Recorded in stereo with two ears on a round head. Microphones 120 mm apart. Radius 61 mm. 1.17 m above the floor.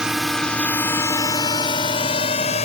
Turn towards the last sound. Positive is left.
turn(degrees=50)  # may be behind; listen again after turning